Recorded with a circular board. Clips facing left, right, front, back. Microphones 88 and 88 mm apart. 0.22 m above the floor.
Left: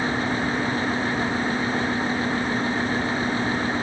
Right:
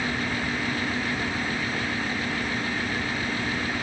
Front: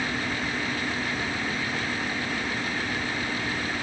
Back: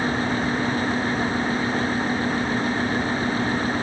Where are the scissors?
I don't hear scissors.